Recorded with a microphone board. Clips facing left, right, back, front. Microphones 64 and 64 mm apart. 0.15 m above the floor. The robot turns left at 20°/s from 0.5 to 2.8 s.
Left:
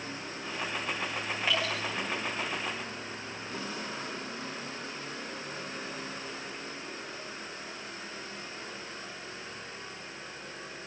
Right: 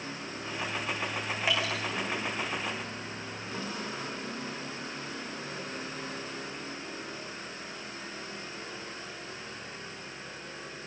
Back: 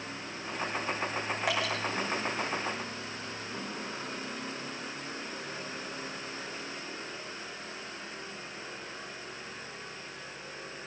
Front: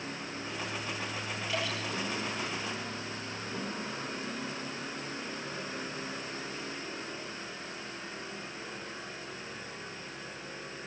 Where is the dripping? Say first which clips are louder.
Even, back 3 dB; 165° right, 6 m; by 1.7 s 175° right, 6 m.